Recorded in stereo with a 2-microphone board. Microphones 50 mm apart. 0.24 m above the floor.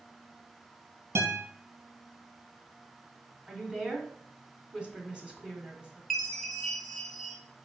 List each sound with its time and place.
1.1 s a guitar: 60° right (ahead or behind), 2.5 m
3.5 s a woman speaking: 20° right (ahead or behind), 2 m
6.1 s a chime: centre (ahead or behind), 1.7 m